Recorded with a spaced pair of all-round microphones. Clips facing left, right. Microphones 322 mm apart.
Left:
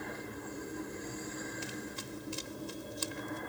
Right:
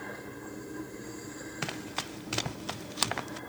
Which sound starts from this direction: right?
Running footsteps, at 1.6 s.